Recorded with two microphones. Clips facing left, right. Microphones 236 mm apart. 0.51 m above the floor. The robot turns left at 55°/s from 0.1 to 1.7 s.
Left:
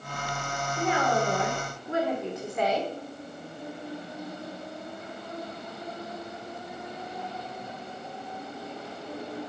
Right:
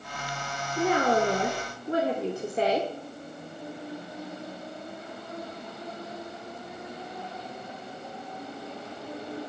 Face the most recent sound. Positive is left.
turn(degrees=-130)